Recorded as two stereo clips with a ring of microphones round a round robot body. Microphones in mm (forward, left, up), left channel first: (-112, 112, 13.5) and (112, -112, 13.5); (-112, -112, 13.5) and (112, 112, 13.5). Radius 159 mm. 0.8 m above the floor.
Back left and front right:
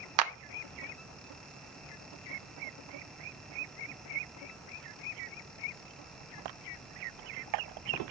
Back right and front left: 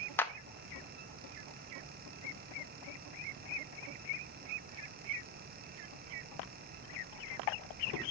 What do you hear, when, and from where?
0.2 s a clap: 55° right, 0.9 m